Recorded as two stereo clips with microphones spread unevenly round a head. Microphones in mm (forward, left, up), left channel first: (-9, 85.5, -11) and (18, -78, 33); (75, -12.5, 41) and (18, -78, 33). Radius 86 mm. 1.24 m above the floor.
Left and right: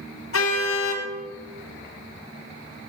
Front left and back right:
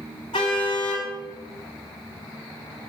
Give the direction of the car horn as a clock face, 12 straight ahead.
8 o'clock.